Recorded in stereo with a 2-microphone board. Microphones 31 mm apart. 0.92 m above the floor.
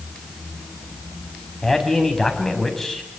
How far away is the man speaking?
About 5.5 m.